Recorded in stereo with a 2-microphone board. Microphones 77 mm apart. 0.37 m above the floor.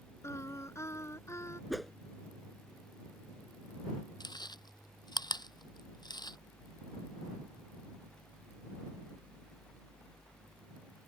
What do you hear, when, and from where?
0.2 s singing: 35° left (ahead or behind)
1.7 s a whoosh: centre (ahead or behind)
4.2 s chewing: 65° left (ahead or behind)